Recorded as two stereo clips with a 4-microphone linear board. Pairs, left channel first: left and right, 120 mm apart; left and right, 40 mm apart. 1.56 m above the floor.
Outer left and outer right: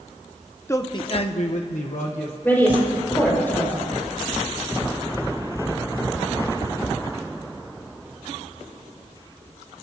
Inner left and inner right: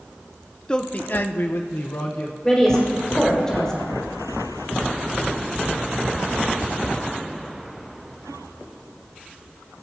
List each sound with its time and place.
0.7 s a man speaking: 20° left (ahead or behind), 0.7 m; by 2.3 s 70° left (ahead or behind), 1.4 m
2.4 s a woman speaking: 15° left (ahead or behind), 5 m